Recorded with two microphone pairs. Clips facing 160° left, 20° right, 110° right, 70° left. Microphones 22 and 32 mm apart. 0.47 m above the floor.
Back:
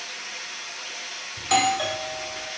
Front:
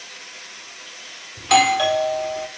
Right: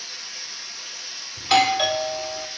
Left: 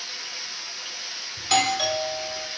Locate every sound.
0.0 s running water: 130° left, 8.5 m
1.4 s a doorbell: 60° right, 1.3 m